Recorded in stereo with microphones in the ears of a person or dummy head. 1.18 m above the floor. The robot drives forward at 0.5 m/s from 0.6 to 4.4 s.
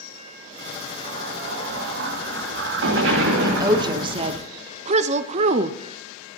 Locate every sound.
1.0 s an explosion: 60° right (ahead or behind), 1.8 m; by 4.4 s 50° right (ahead or behind), 2 m
3.4 s a woman speaking: 25° right (ahead or behind), 1.1 m; by 5.8 s 40° right (ahead or behind), 0.6 m